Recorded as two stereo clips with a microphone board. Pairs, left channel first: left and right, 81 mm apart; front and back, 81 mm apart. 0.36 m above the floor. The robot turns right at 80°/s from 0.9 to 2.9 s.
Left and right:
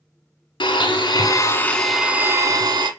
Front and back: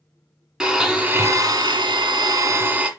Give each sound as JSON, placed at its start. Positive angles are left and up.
{"t": 0.6, "sound": "a blender", "azimuth_deg": 100, "distance_m": 0.9}